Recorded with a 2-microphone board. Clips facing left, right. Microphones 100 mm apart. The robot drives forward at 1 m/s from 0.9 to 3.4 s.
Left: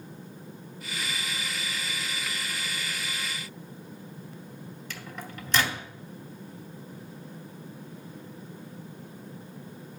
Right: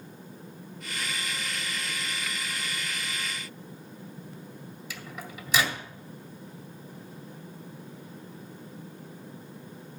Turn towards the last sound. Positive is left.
turn(degrees=-5)  # may be behind; listen again after turning